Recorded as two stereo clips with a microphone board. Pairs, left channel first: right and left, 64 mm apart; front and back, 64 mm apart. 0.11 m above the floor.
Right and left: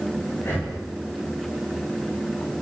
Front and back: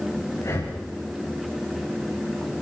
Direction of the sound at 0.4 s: 35° right.